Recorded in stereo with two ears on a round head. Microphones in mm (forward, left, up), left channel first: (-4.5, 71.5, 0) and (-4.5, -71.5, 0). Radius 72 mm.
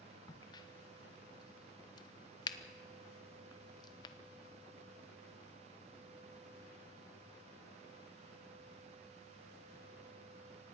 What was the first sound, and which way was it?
A crack, 25° left (ahead or behind).